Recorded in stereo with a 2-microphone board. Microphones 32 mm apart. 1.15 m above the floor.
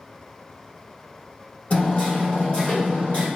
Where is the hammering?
40° left (ahead or behind), 1.2 m.